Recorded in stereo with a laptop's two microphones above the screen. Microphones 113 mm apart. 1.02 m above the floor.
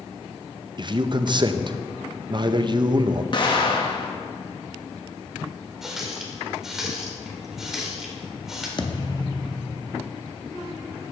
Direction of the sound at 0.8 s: 40° right (ahead or behind).